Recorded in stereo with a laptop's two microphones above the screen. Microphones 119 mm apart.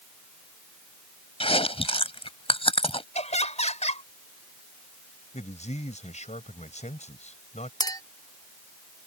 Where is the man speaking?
80° left.